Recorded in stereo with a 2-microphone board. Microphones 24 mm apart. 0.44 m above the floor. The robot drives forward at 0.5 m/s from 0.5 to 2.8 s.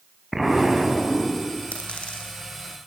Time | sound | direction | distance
0.3 | an explosion | centre (ahead or behind) | 4.5 m
1.7 | a dropped coin | 55° left (ahead or behind) | 8.5 m